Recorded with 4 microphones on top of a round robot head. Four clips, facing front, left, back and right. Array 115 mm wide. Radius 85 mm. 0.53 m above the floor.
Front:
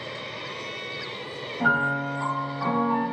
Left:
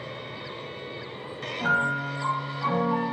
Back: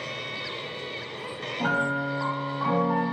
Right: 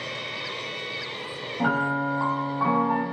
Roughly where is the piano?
Right.